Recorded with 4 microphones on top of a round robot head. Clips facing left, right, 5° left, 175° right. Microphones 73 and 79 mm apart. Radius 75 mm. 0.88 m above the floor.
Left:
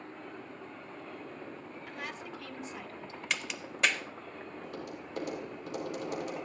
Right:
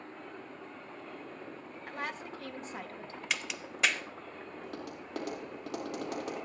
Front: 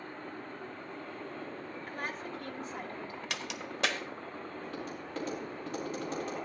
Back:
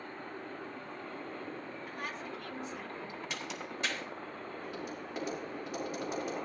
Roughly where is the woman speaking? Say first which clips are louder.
Right 4 dB, front 3 dB; ahead right.